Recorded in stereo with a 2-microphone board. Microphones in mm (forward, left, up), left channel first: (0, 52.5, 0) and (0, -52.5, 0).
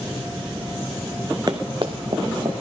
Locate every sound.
1.5 s running footsteps: 40° right (ahead or behind), 1.0 m; by 2.5 s 55° right (ahead or behind), 1.7 m